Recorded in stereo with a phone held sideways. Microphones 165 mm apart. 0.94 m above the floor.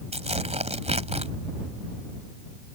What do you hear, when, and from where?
0.1 s tearing paper: 40° right (ahead or behind)